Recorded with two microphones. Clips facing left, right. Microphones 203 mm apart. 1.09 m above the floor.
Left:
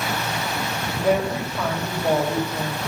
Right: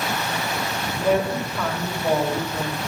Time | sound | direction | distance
1.0 | a woman speaking | 10° left (ahead or behind) | 5 m